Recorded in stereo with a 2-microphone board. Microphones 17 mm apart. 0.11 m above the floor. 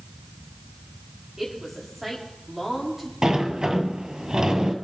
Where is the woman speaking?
15° right (ahead or behind), 9 m.